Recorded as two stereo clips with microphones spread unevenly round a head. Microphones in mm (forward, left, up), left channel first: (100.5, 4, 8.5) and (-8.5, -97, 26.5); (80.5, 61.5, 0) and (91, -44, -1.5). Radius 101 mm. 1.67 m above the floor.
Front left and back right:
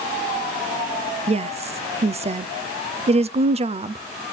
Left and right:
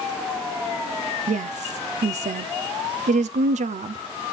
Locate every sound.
1.3 s a woman speaking: 85° right, 0.6 m